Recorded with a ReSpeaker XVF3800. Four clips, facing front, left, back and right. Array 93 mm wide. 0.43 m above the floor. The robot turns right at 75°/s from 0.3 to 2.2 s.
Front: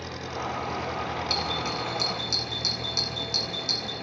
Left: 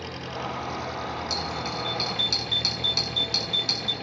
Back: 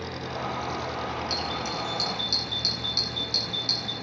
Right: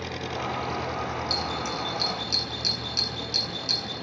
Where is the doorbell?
15° left, 6 m; by 3.9 s 80° left, 6 m.